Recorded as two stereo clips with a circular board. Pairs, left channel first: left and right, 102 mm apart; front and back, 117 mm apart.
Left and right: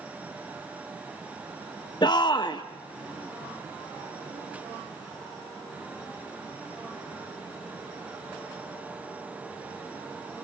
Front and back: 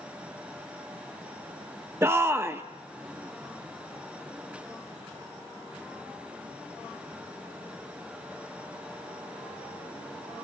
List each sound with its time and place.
2.0 s a shout: 115° left, 0.6 m